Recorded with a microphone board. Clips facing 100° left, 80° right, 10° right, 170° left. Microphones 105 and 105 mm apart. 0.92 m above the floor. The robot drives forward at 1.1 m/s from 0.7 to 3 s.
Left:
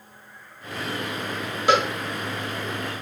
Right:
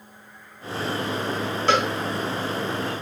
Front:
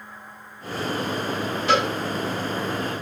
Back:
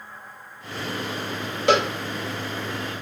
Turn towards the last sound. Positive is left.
turn(degrees=180)